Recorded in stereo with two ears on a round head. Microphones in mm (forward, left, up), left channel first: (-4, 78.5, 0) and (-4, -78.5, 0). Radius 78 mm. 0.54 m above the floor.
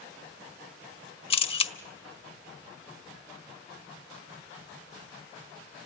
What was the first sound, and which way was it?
A camera shutter, 30° left (ahead or behind).